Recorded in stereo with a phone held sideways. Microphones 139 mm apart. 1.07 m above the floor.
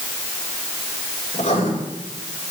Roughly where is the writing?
Left.